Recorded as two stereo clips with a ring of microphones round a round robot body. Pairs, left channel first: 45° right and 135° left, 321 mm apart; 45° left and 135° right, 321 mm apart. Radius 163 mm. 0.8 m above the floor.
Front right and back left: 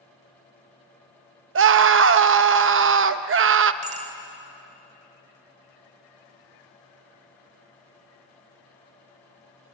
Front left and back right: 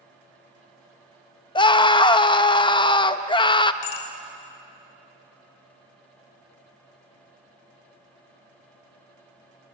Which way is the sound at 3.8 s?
65° left.